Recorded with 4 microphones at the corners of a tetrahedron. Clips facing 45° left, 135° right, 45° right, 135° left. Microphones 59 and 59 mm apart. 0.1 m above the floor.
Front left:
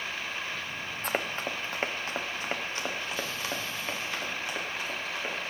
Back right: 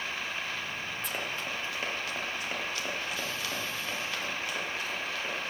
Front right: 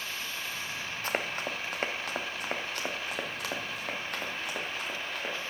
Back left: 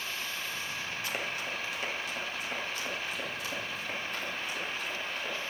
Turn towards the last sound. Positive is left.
turn(degrees=-25)